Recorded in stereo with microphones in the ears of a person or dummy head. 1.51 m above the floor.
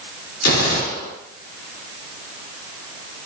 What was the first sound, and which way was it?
A gunshot, 85° left.